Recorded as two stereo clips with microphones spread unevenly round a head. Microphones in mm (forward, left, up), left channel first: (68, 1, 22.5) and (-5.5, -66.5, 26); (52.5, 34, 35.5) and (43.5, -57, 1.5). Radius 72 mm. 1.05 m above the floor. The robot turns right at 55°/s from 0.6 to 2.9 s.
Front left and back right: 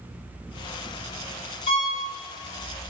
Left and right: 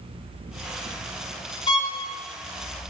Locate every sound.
1.7 s a violin: 50° left, 1.5 m; by 1.9 s 65° left, 1.5 m